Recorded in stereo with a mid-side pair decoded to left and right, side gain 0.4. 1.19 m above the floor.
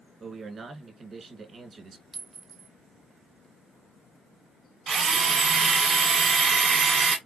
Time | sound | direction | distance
0.2 | a man speaking | 50° right | 1.4 m
2.1 | a clink | 45° right | 0.9 m
4.9 | a drill | 55° right | 1.3 m